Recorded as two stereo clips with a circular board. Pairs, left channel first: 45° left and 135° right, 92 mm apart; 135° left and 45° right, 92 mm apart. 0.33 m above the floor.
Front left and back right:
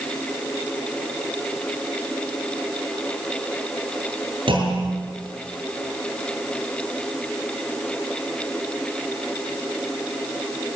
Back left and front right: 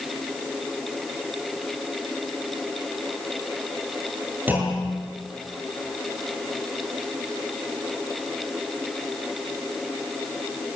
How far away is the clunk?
About 6.5 m.